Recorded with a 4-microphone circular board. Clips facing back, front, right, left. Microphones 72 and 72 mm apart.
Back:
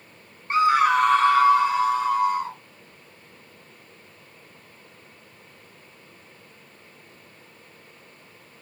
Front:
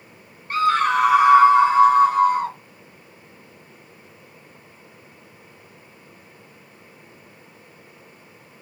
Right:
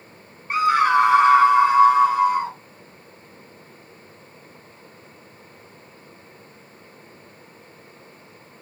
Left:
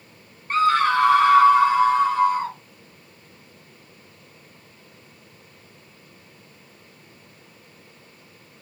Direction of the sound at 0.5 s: 155° right.